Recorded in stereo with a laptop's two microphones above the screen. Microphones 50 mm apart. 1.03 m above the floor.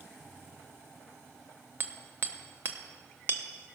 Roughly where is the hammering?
Right.